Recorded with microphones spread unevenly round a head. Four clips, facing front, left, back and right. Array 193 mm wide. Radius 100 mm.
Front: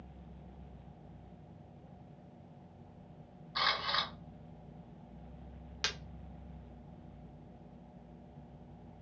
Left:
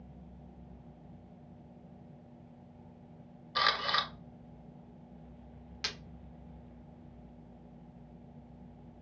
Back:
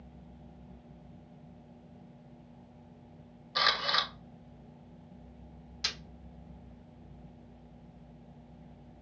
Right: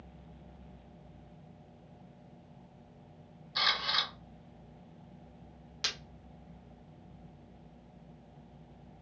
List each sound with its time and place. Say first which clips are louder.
3.5 s a camera shutter: left 4 dB, back 4 dB; 145° left, 0.9 m
5.8 s breaking glass: right 1 dB, front 2 dB; 15° right, 1.4 m